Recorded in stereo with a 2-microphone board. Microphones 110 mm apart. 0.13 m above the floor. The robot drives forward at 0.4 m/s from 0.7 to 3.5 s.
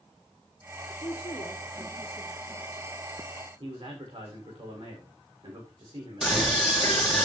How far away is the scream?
About 5 m.